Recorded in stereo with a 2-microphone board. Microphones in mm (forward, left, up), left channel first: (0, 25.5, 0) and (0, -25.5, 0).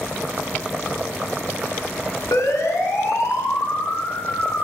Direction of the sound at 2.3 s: 70° left (ahead or behind).